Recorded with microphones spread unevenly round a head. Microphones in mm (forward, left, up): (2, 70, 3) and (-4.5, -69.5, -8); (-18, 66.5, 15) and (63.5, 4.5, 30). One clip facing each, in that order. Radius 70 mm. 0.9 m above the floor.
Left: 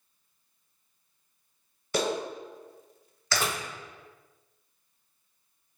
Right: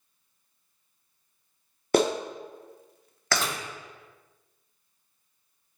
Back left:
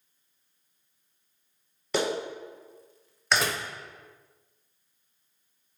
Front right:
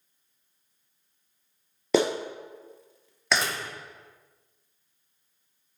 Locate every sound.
1.9 s a clap: 50° right, 1.2 m
3.3 s a door slam: 175° left, 0.8 m